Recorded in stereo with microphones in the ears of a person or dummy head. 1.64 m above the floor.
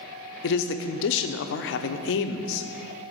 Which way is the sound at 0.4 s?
60° left (ahead or behind).